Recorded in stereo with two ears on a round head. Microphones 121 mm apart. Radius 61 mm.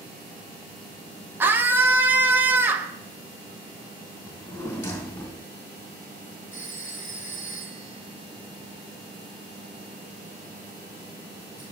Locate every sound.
1.4 s a scream: 15° right (ahead or behind), 0.8 m
4.2 s a drawer: 20° left (ahead or behind), 2.5 m
6.5 s a phone ringing: 15° right (ahead or behind), 5 m